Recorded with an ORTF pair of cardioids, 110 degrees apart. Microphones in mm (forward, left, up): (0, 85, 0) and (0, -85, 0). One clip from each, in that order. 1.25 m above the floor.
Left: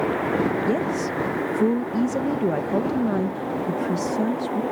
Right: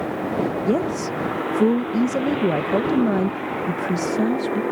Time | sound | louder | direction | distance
0.7 | a woman speaking | right 1 dB | 20° right | ?